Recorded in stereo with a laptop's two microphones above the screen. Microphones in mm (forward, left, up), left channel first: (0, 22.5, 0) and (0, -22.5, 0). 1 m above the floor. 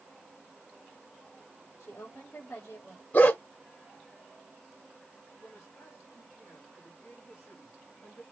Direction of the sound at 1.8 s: 85° left.